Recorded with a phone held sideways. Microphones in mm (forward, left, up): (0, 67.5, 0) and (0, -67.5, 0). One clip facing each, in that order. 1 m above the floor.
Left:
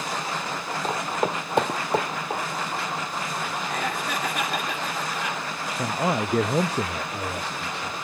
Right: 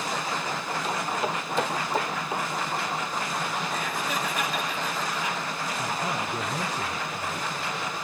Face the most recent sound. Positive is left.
turn(degrees=75)  # may be behind; listen again after turning